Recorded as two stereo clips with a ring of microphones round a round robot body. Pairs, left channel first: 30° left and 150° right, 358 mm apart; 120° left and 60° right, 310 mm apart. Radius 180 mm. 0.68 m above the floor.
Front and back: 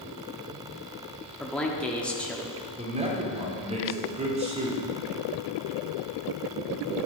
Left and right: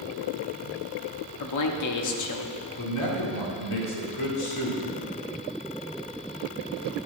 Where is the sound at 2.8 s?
140° left, 2.5 m.